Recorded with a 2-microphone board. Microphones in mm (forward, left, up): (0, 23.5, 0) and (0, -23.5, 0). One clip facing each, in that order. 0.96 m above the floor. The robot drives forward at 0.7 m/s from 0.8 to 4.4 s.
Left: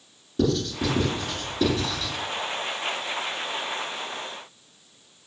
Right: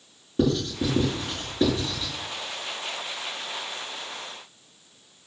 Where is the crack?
I don't hear a crack.